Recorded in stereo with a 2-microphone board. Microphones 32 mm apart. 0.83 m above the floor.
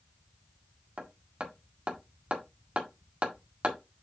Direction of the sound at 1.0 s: 40° right (ahead or behind).